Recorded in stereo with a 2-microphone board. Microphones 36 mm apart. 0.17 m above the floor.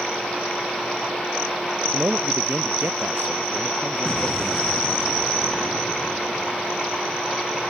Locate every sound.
1.9 s a man speaking: 65° right (ahead or behind)
4.0 s an explosion: 10° left (ahead or behind)